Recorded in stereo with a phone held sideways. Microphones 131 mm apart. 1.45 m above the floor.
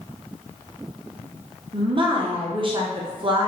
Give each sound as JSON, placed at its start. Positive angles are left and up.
{"t": 1.7, "sound": "a woman speaking", "side_deg": -40, "distance_m": 0.7}